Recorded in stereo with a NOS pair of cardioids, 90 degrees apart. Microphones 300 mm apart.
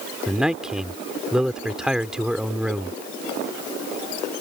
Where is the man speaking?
Straight ahead.